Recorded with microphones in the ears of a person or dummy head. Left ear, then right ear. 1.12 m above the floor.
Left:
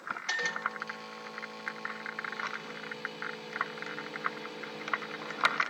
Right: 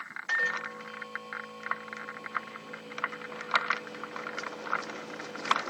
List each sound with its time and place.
0.3 s a microwave: 45° left (ahead or behind), 0.8 m